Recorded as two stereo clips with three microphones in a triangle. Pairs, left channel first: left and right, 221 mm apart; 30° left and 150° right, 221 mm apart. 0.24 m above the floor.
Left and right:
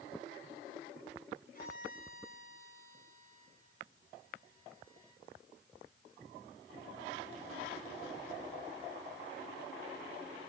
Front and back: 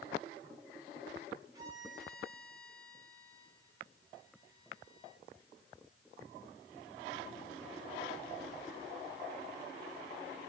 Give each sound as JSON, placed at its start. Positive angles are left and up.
{"t": 1.5, "sound": "a violin", "azimuth_deg": 135, "distance_m": 4.5}